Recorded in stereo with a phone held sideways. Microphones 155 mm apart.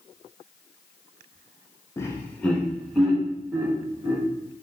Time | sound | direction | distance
2.0 | laughter | 15° left (ahead or behind) | 0.8 m